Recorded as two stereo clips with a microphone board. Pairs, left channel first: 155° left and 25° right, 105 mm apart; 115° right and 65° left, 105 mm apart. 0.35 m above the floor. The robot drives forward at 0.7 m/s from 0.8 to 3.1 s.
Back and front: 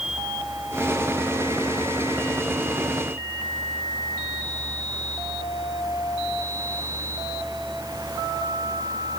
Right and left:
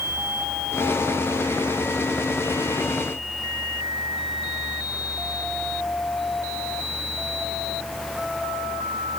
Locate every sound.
Only background noise.